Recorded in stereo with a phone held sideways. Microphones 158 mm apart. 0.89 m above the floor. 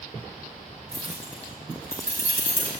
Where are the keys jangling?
70° left (ahead or behind), 5.5 m; by 2.7 s 75° left (ahead or behind), 4.5 m.